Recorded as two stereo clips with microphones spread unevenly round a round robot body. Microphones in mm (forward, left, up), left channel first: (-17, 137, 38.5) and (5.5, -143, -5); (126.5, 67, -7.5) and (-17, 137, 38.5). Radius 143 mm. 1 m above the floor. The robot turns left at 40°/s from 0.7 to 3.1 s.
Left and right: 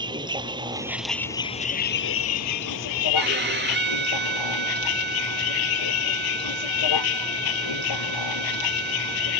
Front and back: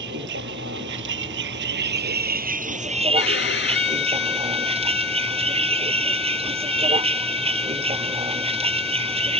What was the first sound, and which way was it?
A vehicle, 160° right.